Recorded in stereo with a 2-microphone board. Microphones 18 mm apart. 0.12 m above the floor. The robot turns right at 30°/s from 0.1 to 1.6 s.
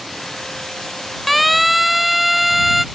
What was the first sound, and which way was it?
A siren, centre (ahead or behind).